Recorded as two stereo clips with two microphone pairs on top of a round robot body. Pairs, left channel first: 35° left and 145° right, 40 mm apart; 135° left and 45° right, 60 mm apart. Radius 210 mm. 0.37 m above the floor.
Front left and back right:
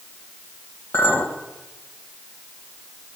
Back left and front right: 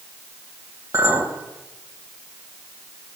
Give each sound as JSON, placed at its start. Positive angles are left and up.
{"t": 0.9, "sound": "a clink", "azimuth_deg": 0, "distance_m": 2.5}